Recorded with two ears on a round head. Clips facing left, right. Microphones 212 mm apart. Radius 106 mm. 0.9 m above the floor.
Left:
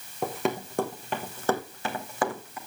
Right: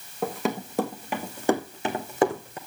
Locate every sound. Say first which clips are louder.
0.2 s running footsteps: right 1 dB; centre (ahead or behind), 3.5 m; by 2.6 s 25° right (ahead or behind), 3 m